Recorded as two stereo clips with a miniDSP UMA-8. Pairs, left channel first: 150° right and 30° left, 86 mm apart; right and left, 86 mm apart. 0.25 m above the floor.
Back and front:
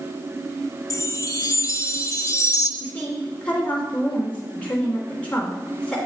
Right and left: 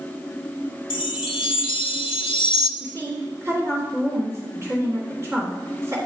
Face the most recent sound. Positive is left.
turn(degrees=135)